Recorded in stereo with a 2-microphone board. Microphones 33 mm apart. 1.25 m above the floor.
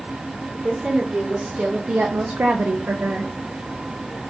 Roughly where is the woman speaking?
Centre.